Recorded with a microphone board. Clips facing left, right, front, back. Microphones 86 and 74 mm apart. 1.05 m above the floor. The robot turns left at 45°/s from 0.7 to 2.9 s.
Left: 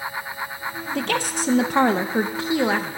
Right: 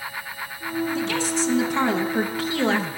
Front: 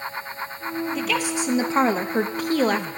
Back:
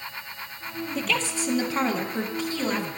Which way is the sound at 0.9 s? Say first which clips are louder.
Even, even; 90° left.